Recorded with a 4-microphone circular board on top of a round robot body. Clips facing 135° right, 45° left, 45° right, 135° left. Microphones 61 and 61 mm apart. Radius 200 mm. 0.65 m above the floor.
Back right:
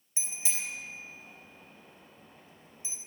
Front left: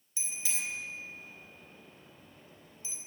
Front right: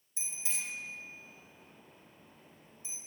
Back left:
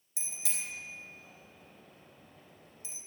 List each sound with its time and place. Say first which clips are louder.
0.2 s a bicycle bell: front left 1 dB, front right 1 dB; 155° left, 3.5 m